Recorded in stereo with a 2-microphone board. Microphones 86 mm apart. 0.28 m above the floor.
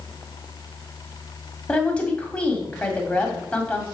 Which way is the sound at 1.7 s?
15° left (ahead or behind).